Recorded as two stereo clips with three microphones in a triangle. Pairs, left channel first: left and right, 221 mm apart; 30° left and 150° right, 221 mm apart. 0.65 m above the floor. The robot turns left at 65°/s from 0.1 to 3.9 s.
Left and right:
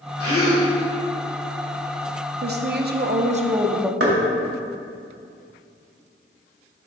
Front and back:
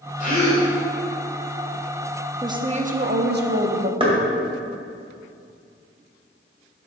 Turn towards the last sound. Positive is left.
turn(degrees=-85)